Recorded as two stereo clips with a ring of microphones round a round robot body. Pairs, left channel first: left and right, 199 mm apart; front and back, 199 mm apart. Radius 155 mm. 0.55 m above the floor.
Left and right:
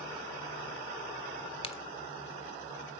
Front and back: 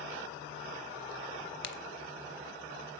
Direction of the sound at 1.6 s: 30° left.